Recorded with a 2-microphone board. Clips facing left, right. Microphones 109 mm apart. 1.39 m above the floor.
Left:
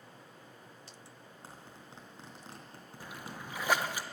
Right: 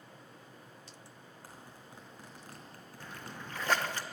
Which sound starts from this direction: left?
A zipper, at 1.4 s.